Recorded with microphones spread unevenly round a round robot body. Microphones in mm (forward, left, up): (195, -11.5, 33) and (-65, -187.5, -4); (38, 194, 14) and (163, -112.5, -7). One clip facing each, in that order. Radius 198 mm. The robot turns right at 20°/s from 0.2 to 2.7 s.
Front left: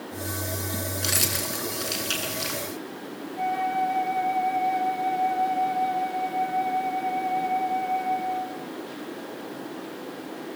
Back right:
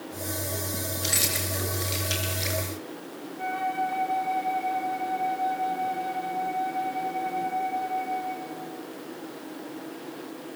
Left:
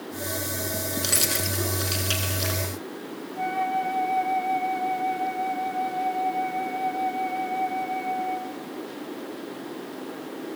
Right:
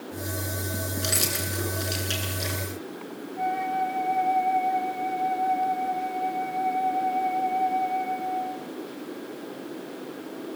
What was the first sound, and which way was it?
Keys jangling, 20° left.